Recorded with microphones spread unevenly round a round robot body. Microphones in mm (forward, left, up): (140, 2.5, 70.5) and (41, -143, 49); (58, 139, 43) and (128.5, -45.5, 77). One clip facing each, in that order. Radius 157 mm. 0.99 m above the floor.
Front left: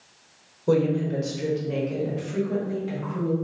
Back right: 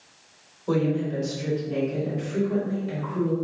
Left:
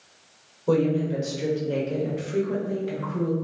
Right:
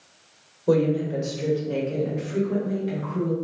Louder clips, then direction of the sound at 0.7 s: Front left 2 dB, right 1 dB; 10° left.